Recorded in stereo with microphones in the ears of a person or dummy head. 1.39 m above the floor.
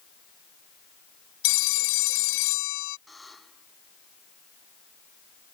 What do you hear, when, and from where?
1.4 s a phone ringing: 85° left
3.1 s a buzzer: 5° right (ahead or behind)